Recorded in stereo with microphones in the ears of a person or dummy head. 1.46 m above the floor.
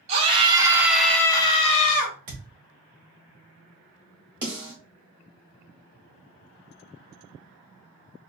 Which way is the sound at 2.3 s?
35° right (ahead or behind).